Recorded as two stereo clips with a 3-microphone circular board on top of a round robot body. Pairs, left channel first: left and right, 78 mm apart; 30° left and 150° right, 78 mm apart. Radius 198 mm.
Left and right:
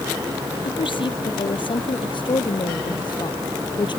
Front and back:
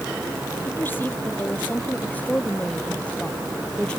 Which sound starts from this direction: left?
A woman speaking, at 0.7 s.